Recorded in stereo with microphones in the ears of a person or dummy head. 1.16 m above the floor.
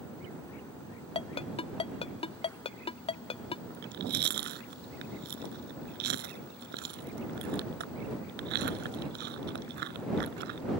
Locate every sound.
1.1 s a ringtone: 25° left (ahead or behind)
3.7 s chewing: 55° right (ahead or behind)